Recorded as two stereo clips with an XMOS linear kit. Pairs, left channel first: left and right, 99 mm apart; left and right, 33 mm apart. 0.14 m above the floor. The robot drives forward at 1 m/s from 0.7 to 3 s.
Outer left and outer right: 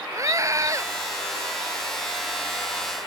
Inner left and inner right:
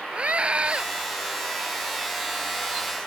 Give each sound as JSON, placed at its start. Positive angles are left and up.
{"t": 0.1, "sound": "a scream", "side_deg": -35}